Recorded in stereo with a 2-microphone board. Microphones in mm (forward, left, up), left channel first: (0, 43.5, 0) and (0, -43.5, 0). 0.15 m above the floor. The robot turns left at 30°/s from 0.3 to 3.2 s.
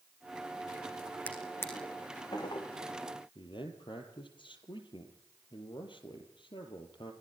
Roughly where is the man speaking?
Left.